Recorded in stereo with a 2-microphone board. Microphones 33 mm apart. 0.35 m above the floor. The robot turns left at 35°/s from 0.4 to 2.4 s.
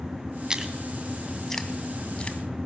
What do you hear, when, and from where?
0.5 s chewing: 20° right (ahead or behind), 2.5 m; by 2.4 s 40° left (ahead or behind), 2.5 m